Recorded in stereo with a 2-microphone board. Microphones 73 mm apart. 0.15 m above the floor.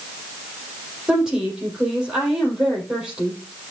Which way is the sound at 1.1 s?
10° right (ahead or behind).